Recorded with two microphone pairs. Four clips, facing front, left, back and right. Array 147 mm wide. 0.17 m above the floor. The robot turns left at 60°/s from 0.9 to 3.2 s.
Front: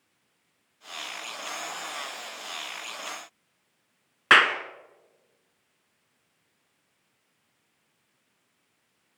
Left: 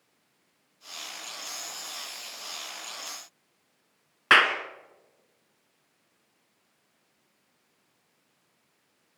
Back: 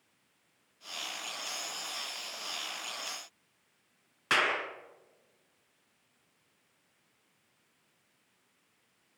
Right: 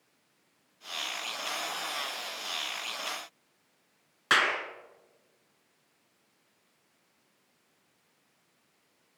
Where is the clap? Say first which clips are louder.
Left 5 dB, front 9 dB; 30° left, 1.9 m.